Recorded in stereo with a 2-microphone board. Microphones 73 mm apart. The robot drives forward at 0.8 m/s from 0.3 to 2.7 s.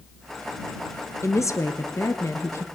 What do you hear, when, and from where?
1.2 s a woman speaking: 40° left (ahead or behind), 1.5 m; by 2.6 s 35° left (ahead or behind), 1.6 m